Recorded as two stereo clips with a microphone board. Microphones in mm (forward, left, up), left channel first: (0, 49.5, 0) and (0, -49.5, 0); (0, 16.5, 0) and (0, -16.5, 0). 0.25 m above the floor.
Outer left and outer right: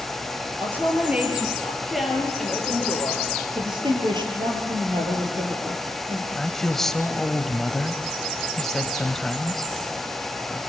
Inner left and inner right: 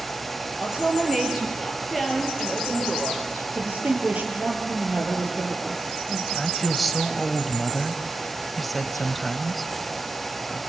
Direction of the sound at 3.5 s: 50° right (ahead or behind).